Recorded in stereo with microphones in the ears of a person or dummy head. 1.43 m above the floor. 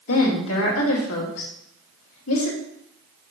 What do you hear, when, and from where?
0.1 s a woman speaking: 80° left, 2.5 m